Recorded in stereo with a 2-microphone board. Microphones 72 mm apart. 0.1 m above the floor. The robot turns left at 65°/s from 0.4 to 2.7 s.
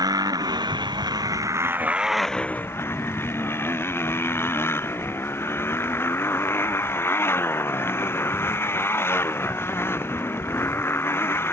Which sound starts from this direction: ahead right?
A motorcycle, at 0.0 s.